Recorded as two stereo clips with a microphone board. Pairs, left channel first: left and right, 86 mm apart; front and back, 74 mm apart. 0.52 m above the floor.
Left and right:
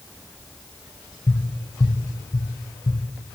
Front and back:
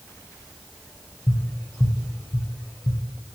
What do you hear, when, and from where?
1.3 s tapping: 40° left, 0.7 m